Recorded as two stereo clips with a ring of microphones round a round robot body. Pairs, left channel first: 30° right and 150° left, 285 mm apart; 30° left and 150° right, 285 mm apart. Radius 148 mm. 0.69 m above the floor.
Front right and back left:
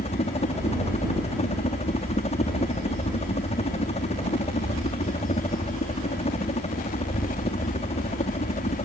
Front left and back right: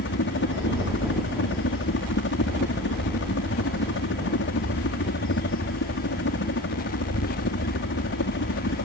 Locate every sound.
0.0 s a helicopter: 25° left